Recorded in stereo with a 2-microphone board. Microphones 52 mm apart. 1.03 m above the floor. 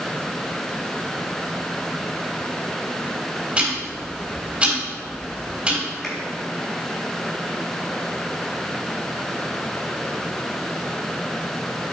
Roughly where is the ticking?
Right.